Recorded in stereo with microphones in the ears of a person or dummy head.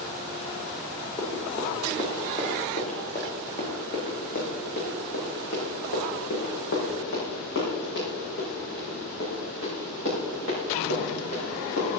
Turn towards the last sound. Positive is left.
turn(degrees=80)